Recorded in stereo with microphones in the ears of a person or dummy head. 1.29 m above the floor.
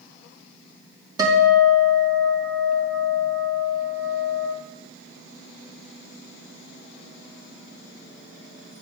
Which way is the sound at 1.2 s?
15° right (ahead or behind).